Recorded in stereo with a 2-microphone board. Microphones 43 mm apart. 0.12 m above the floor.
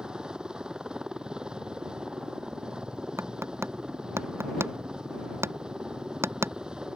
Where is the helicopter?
20° right (ahead or behind).